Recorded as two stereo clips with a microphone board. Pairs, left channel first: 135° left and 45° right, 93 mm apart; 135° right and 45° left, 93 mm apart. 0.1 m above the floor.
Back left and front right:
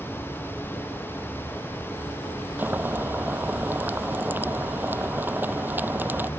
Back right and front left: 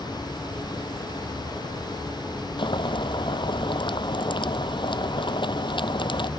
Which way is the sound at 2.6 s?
115° right.